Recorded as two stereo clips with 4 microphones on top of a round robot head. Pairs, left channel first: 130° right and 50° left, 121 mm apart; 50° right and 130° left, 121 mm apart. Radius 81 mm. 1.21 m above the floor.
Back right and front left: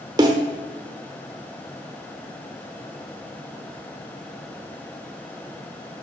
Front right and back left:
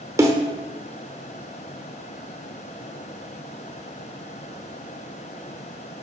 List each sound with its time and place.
0.2 s a snare drum: 85° left, 0.9 m